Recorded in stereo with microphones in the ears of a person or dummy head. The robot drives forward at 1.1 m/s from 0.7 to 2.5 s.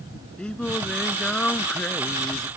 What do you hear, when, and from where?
0.4 s singing: 10° left (ahead or behind)